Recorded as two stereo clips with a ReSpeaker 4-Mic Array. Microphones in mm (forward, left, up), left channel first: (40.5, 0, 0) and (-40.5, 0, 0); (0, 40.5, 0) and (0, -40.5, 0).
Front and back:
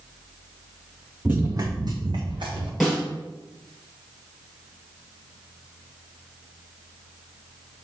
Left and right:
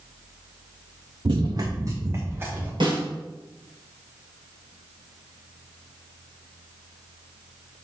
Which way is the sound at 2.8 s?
90° right.